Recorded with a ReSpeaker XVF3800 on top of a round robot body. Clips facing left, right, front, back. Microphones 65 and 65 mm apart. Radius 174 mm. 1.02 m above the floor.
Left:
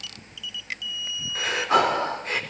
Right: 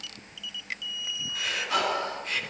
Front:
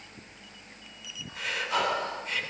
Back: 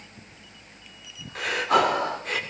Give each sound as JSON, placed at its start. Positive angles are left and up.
{"t": 1.4, "sound": "breathing", "azimuth_deg": 145, "distance_m": 2.5}